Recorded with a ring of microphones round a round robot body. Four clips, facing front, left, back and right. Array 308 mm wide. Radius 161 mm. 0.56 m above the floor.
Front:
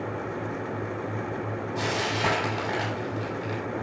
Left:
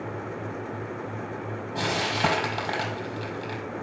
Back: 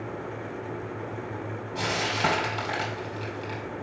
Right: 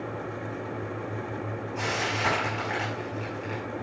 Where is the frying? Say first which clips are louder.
Left 4 dB, even; 90° left, 5 m.